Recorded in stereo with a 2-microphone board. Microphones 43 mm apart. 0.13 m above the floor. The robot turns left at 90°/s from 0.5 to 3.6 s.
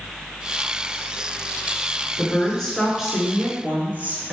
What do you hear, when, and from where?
2.2 s a woman speaking: 60° left, 1.4 m; by 4.3 s 70° right, 1.4 m